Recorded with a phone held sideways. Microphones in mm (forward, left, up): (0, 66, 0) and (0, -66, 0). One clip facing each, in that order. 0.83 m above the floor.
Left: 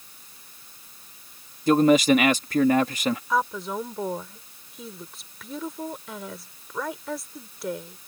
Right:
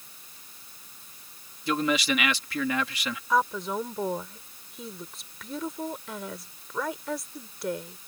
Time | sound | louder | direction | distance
1.7 | a man speaking | left 9 dB | 45° left (ahead or behind) | ?
3.3 | a woman speaking | even | centre (ahead or behind) | ?